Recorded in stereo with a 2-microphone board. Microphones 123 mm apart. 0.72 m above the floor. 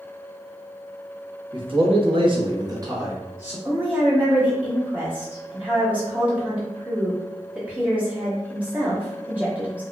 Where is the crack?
No crack in this recording.